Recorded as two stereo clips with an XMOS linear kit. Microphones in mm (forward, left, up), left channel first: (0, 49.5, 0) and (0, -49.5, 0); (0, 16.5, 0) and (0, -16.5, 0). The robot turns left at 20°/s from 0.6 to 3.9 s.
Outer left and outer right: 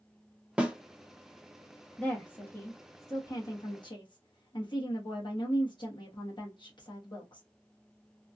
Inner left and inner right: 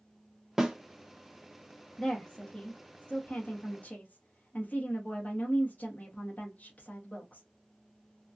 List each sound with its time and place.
0.6 s a snare drum: 10° right (ahead or behind), 0.7 m; by 0.8 s 15° right (ahead or behind), 0.7 m
2.0 s a woman speaking: 170° left, 1.2 m; by 7.4 s 130° left, 1.2 m